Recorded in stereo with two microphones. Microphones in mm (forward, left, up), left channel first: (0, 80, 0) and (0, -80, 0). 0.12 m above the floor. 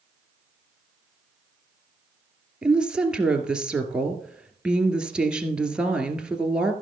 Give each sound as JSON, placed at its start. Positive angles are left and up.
{"t": 2.6, "sound": "a woman speaking", "side_deg": -5, "distance_m": 1.9}